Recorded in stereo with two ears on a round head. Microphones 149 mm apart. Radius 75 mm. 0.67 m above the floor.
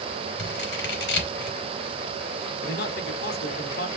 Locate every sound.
0.4 s scissors: 70° left (ahead or behind), 3.5 m
2.6 s a man speaking: 65° left (ahead or behind), 1.9 m